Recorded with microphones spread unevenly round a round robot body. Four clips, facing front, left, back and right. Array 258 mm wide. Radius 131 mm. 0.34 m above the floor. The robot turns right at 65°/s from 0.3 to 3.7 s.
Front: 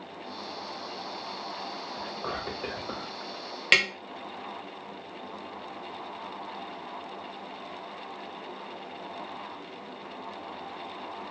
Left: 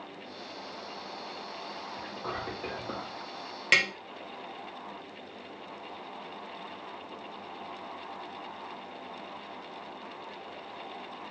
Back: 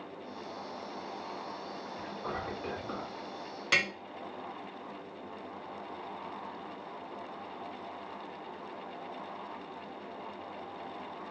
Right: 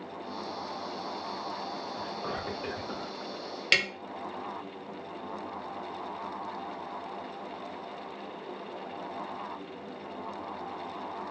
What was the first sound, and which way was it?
Whispering, 35° right.